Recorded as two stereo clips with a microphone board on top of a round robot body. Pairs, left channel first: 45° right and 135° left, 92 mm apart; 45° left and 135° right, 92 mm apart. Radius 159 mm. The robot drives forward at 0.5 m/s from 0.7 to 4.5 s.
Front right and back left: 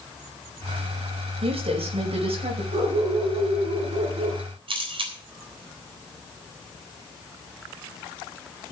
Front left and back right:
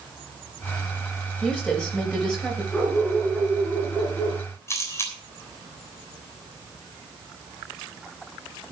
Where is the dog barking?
130° left, 6 m; by 4.4 s 135° left, 6.5 m.